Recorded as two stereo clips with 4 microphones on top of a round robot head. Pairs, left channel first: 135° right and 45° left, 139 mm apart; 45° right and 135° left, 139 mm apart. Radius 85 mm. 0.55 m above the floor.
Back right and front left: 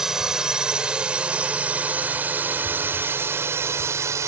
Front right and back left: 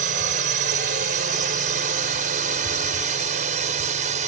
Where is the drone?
130° left; by 4.3 s 110° left.